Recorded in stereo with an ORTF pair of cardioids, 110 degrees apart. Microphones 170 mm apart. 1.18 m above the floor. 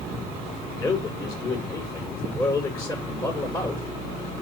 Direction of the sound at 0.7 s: 20° left.